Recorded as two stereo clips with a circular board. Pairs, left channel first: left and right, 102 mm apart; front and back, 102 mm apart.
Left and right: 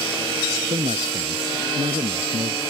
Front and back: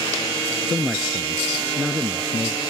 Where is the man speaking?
90° right.